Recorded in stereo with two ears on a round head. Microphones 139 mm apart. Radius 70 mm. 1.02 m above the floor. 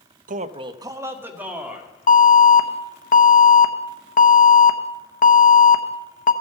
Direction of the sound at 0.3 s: 55° right (ahead or behind).